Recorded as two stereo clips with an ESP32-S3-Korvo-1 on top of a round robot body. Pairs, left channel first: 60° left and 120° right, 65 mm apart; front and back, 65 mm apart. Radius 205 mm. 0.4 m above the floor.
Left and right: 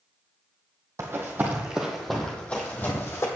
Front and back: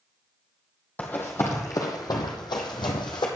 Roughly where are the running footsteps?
Ahead right.